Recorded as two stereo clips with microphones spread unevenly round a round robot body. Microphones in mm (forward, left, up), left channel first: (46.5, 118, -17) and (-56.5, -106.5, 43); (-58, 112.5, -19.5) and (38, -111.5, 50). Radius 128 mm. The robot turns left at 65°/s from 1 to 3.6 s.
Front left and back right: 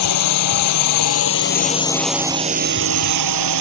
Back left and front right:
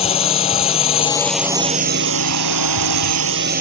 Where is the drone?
45° left; by 3.6 s 125° right.